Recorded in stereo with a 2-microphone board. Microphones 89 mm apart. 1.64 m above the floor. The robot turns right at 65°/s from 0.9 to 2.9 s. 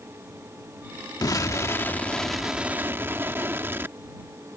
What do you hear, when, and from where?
1.2 s an explosion: 105° left; by 4.0 s 145° right